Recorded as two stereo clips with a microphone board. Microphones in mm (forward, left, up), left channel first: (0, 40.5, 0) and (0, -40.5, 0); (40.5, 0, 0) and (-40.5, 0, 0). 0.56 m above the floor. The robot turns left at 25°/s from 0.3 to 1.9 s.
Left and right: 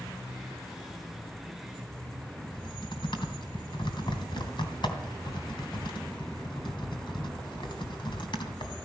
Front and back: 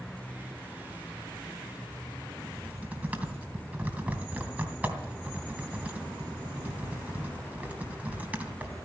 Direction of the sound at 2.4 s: 110° left.